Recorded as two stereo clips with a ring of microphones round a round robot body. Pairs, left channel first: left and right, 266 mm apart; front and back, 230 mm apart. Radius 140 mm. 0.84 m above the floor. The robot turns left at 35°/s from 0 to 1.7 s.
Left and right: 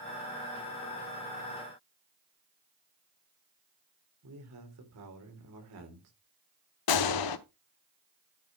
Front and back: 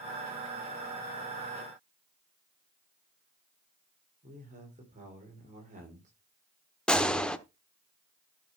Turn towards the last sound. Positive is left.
turn(degrees=85)